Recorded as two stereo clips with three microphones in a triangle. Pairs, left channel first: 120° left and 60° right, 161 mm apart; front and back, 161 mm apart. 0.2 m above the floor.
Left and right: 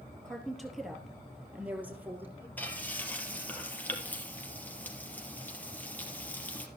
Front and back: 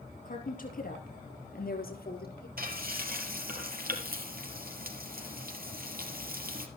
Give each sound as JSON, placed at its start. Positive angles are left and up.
{"t": 0.2, "sound": "a woman speaking", "azimuth_deg": 35, "distance_m": 4.5}
{"t": 2.6, "sound": "frying", "azimuth_deg": -160, "distance_m": 3.0}